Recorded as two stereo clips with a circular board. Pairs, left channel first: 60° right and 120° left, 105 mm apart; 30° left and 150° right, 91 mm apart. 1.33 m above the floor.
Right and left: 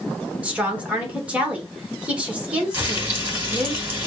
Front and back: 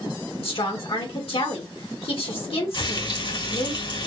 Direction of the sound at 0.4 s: 40° left.